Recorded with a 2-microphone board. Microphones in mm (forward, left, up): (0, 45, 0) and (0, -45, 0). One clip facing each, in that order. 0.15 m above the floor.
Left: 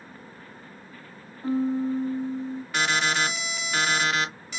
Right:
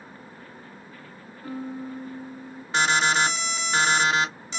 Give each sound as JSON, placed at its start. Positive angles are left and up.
{"t": 1.4, "sound": "a piano", "side_deg": 25, "distance_m": 0.7}
{"t": 2.7, "sound": "an alarm", "side_deg": -25, "distance_m": 1.9}